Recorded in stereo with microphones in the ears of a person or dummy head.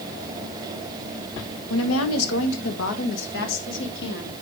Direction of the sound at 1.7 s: 85° left.